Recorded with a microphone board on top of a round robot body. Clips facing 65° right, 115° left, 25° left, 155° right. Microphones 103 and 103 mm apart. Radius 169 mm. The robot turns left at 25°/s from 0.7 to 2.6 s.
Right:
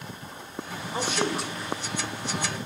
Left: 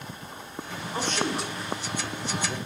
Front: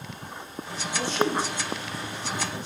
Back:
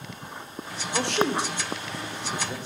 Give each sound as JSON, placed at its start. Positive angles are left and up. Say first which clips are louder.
{"t": 0.9, "sound": "a man speaking", "louder": "right 1 dB, back 1 dB", "azimuth_deg": -145, "distance_m": 1.6}